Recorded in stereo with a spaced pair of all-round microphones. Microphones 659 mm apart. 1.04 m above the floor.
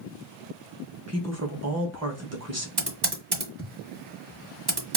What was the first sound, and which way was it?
A woman speaking, 25° right (ahead or behind).